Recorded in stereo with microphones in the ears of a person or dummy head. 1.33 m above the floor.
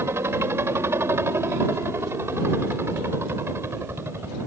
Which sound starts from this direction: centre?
A helicopter, at 0.0 s.